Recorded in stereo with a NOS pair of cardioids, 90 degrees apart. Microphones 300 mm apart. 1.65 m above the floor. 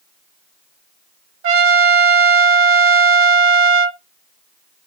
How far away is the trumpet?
About 0.6 m.